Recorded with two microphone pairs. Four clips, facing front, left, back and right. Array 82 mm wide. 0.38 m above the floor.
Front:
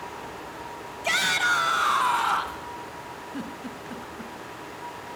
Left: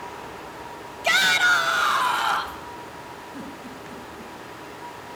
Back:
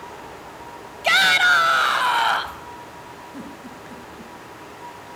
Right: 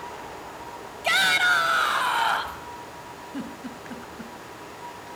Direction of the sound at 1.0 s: 175° left.